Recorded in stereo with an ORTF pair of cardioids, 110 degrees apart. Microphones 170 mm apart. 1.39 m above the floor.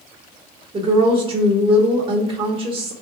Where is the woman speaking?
30° right, 1.1 m.